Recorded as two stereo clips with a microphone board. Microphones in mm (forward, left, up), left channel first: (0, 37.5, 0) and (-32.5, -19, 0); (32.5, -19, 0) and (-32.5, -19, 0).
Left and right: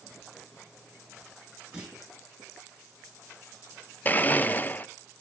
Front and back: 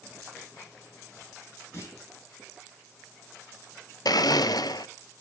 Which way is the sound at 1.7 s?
45° right.